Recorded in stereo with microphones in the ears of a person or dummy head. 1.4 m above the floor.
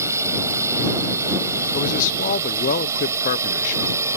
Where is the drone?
15° right (ahead or behind).